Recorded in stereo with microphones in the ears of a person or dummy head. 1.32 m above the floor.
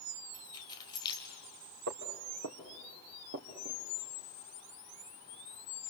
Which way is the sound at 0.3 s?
25° left (ahead or behind).